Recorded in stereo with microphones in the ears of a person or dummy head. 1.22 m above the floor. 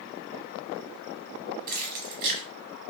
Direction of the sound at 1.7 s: 50° right (ahead or behind).